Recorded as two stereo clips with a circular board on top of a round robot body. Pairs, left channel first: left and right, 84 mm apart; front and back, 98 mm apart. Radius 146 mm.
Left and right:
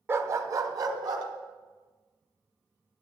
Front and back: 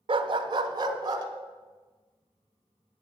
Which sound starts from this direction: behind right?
A dog barking, at 0.1 s.